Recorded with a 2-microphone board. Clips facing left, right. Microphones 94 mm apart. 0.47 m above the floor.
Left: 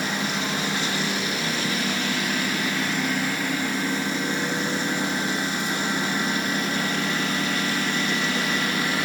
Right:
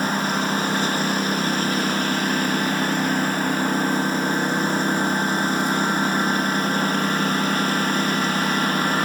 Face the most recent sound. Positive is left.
turn(degrees=-40)  # may be behind; listen again after turning